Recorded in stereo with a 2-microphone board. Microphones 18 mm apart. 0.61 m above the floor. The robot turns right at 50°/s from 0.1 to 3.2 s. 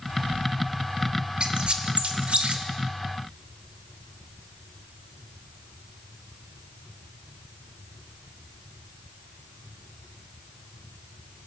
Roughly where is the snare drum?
No snare drum in this recording.